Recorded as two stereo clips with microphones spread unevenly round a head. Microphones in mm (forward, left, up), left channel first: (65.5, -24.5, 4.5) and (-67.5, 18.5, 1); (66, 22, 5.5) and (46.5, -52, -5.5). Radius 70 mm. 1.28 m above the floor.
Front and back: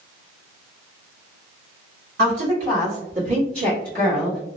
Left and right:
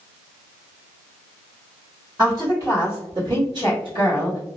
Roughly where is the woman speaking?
Behind.